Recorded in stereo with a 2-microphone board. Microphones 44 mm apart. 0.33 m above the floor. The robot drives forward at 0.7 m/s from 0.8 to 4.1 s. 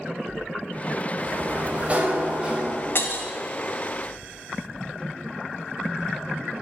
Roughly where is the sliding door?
Right.